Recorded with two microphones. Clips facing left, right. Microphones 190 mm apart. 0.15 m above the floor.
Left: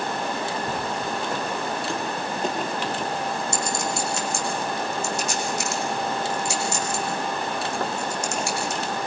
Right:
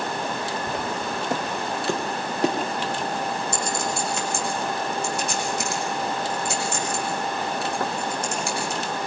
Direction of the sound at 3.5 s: 55° right (ahead or behind).